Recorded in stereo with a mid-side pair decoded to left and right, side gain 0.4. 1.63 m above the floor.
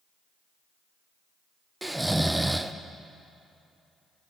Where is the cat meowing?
No cat meowing in this recording.